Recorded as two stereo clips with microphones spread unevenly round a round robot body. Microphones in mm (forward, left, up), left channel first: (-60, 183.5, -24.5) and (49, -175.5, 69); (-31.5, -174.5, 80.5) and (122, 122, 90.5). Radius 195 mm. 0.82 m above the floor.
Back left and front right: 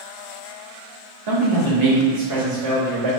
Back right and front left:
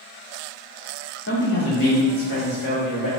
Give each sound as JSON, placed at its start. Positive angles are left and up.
{"t": 1.3, "sound": "a man speaking", "azimuth_deg": -65, "distance_m": 1.4}